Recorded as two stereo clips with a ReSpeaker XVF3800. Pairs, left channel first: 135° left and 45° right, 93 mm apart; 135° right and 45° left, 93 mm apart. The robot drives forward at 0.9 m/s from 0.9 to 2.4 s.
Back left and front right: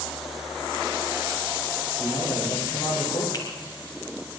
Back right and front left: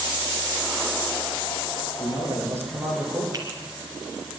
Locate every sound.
2.0 s a man speaking: 105° left, 9 m; by 3.2 s 110° left, 9 m
3.3 s a finger snap: 90° left, 3 m